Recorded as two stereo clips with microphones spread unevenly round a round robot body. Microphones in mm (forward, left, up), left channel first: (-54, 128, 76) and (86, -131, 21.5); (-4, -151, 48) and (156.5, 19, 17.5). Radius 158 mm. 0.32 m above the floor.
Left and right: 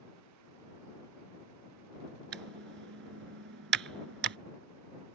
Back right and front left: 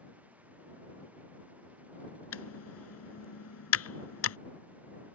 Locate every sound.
2.3 s typing on a keyboard: 115° right